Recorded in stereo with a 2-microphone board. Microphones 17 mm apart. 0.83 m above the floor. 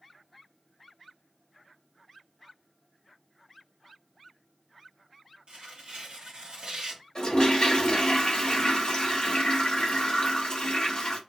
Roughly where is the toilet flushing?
Left.